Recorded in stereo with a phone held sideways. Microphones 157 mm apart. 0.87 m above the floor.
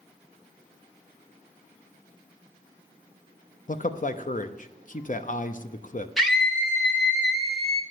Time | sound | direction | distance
3.7 | a man speaking | 55° left (ahead or behind) | 0.7 m
6.2 | a scream | centre (ahead or behind) | 0.9 m